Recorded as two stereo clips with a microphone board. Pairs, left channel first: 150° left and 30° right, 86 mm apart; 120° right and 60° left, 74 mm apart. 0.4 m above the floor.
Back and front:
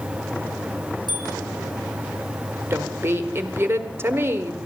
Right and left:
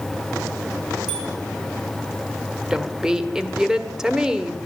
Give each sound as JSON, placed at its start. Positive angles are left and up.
{"t": 1.1, "sound": "a bicycle bell", "azimuth_deg": 140, "distance_m": 6.0}
{"t": 2.7, "sound": "a woman speaking", "azimuth_deg": -10, "distance_m": 1.5}